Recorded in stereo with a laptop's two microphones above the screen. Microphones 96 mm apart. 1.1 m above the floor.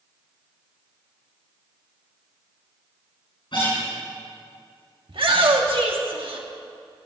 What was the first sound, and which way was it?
A guitar, 60° left (ahead or behind).